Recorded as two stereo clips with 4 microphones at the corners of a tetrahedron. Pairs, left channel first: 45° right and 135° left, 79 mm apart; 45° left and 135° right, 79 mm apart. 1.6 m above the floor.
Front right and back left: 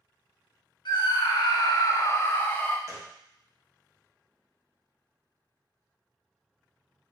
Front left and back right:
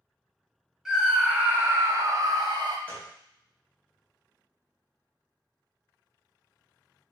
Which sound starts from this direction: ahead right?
A scream, at 0.8 s.